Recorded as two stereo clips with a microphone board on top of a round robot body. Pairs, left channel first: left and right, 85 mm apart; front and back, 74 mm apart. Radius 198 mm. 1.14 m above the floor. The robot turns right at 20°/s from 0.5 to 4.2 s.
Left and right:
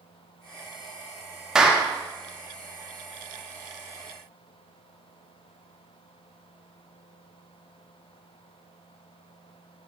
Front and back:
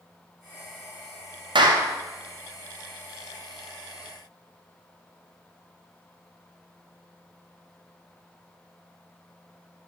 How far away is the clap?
About 1.9 m.